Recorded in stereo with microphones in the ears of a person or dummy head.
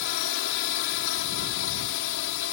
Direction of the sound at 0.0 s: 65° left (ahead or behind).